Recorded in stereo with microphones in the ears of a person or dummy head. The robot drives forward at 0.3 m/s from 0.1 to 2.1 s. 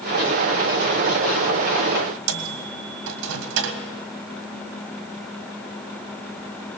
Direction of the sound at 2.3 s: 80° right.